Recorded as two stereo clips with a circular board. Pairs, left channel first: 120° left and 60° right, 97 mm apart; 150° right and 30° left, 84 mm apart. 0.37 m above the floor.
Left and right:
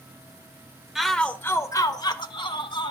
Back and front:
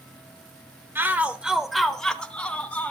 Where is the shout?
20° left, 0.9 m; by 2.9 s 140° left, 1.7 m.